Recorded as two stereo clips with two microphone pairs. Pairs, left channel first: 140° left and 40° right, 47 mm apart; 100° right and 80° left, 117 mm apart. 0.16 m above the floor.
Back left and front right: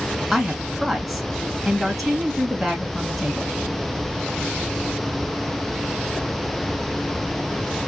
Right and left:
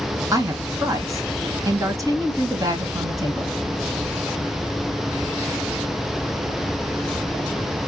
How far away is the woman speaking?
About 1.2 m.